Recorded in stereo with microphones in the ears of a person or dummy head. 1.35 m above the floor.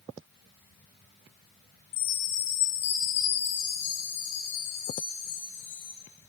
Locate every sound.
1.9 s a chime: 35° left (ahead or behind), 0.9 m